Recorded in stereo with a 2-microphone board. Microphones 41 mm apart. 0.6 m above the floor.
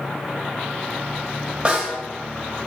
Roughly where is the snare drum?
Right.